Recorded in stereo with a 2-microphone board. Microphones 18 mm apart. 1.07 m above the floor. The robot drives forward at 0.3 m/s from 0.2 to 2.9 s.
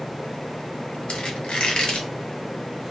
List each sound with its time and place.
1.1 s a squeak: 85° left, 1.0 m; by 2.1 s 75° left (ahead or behind), 1.0 m